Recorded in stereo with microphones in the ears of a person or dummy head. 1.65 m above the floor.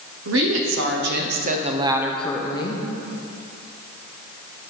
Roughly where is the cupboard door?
I don't hear a cupboard door.